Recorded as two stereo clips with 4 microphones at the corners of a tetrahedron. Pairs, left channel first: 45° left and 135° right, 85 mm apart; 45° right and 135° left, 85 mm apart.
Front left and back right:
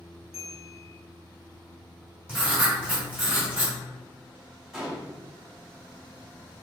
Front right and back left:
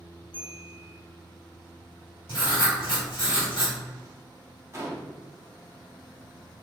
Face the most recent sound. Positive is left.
turn(degrees=140)